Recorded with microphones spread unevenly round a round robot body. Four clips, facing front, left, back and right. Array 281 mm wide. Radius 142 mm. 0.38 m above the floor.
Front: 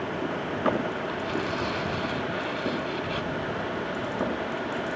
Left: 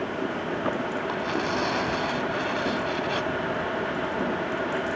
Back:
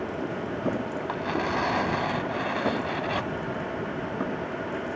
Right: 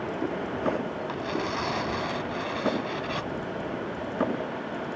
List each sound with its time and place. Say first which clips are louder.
1.1 s tearing paper: left 3 dB, back 2 dB; 175° left